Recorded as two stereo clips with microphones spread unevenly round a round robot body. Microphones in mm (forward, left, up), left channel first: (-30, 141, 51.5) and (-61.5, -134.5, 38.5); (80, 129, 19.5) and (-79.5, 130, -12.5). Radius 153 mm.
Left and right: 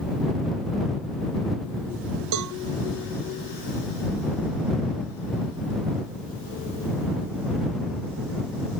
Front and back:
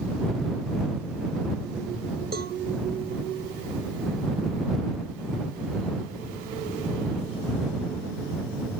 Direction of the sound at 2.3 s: 120° right.